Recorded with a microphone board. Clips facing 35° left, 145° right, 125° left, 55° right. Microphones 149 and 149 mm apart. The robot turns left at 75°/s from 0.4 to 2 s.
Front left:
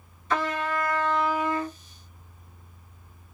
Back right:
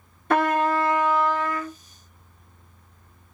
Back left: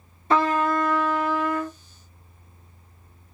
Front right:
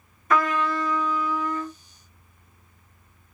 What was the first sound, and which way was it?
A trumpet, 175° right.